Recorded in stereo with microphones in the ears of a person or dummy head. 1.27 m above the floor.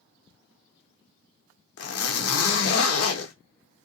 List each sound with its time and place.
1.8 s a zipper: 75° left (ahead or behind), 0.9 m